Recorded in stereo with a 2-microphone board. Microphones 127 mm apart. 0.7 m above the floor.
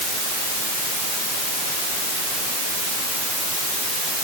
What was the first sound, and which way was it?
Only background noise.